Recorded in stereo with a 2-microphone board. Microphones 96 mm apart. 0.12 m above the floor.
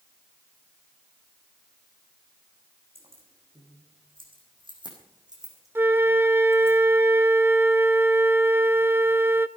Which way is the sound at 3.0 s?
80° right.